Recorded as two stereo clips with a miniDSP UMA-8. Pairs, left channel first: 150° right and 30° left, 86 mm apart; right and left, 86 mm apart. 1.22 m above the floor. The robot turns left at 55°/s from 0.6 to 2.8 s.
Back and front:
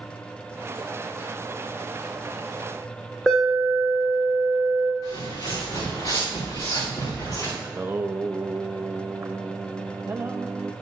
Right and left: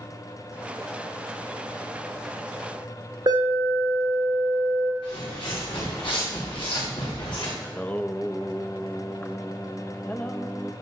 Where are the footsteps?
110° right, 6 m; by 7.5 s 100° right, 7 m.